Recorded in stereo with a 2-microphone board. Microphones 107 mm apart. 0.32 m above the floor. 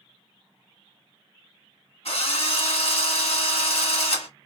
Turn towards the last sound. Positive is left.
turn(degrees=70)  # may be behind; listen again after turning